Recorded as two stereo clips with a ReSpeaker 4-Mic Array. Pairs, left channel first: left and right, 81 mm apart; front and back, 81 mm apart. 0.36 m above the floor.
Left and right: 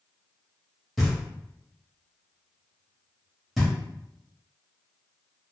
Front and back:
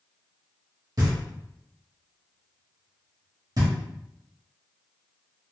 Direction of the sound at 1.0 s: Straight behind.